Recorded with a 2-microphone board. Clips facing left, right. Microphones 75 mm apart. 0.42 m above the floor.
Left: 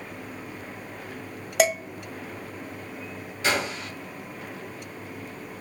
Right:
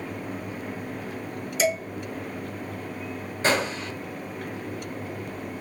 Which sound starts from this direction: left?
Dishes clattering, at 1.6 s.